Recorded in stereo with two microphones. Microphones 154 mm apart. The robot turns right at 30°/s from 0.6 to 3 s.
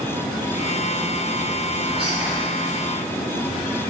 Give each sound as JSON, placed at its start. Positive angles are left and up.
{"t": 1.9, "sound": "whispering", "side_deg": -40, "distance_m": 2.5}